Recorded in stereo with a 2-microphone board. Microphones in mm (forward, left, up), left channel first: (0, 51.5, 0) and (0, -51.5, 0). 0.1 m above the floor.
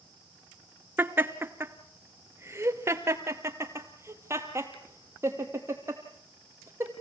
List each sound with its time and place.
1.0 s laughter: 20° right (ahead or behind), 1.3 m; by 6.9 s 25° right (ahead or behind), 4.5 m